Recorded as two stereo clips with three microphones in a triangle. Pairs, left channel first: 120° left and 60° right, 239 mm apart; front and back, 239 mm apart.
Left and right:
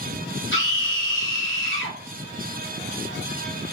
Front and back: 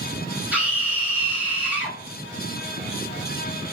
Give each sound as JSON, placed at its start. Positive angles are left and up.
{"t": 0.5, "sound": "a scream", "azimuth_deg": 95, "distance_m": 2.5}